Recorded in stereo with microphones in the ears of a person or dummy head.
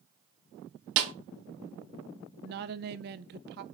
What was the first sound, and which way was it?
A snare drum, 70° right (ahead or behind).